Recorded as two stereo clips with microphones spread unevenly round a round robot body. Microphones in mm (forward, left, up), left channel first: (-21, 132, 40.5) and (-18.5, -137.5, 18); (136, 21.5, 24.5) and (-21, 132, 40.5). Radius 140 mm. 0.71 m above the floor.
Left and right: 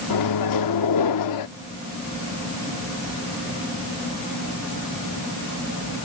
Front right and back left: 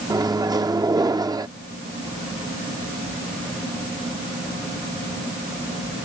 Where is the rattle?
I don't hear a rattle.